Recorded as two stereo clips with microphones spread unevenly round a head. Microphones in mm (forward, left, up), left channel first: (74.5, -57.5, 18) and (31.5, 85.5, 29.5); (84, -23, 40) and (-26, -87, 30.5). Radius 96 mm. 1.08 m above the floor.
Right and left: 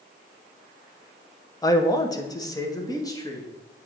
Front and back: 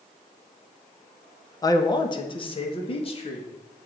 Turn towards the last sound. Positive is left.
turn(degrees=-10)